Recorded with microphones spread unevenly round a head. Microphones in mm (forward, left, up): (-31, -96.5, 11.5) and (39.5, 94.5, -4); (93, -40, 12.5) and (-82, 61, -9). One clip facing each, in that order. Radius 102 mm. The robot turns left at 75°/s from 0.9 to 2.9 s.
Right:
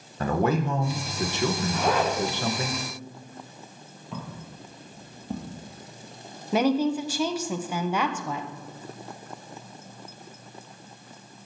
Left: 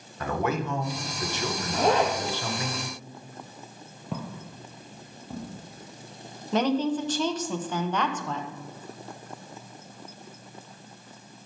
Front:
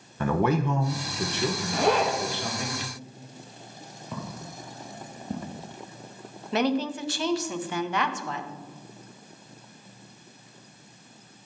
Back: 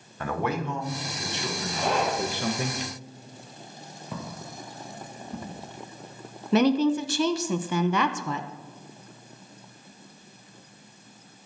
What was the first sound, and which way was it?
A man speaking, 50° right.